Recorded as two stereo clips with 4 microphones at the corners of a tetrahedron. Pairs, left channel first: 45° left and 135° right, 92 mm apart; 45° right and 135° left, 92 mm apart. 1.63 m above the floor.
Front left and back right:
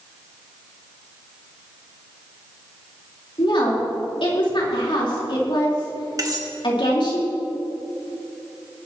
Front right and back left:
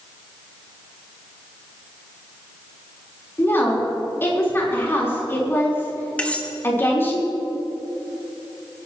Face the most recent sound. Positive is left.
turn(degrees=-115)